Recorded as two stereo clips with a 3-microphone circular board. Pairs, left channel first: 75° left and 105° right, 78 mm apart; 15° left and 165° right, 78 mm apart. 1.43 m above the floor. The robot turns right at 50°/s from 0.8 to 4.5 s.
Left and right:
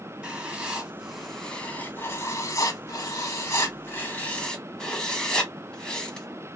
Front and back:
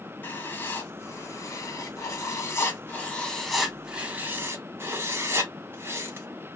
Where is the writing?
30° right, 0.8 m; by 6.3 s 155° left, 0.8 m.